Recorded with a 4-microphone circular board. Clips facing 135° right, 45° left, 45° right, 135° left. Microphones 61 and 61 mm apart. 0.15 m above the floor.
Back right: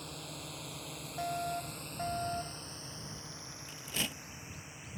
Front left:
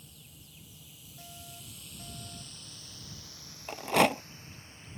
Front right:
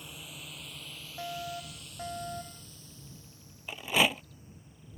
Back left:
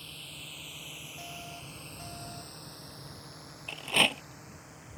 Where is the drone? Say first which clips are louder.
Back right 12 dB, front right 1 dB; 120° right; by 5.0 s 150° left.